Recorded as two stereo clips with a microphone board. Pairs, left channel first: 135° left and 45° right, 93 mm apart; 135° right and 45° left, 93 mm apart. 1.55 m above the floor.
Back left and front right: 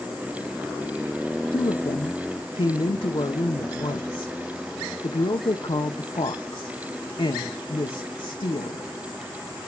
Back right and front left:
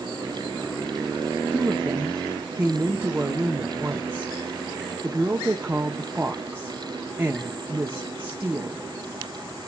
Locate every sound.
1.5 s a woman speaking: 115° left, 1.0 m